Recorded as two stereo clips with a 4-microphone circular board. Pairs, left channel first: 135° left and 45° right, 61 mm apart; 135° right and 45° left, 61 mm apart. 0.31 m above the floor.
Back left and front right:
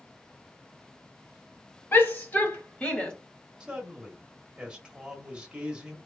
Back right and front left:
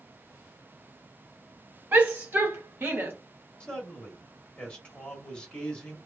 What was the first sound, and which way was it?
A shout, 95° left.